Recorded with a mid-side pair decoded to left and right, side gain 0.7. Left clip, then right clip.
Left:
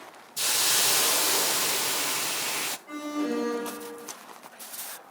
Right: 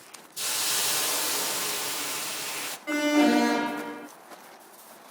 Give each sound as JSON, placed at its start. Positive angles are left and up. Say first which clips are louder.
{"t": 0.4, "sound": "a hiss", "louder": "left 4 dB", "azimuth_deg": 20, "distance_m": 0.7}
{"t": 2.9, "sound": "an alarm", "louder": "right 9 dB", "azimuth_deg": -55, "distance_m": 1.1}